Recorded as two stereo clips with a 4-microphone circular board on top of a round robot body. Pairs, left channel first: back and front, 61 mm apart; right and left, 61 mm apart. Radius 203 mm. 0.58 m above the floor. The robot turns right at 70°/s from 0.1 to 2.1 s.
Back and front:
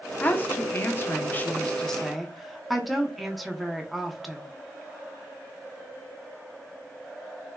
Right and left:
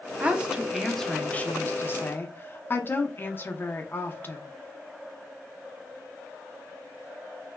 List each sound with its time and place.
0.2 s a woman speaking: 135° left, 0.8 m; by 4.4 s 90° right, 0.8 m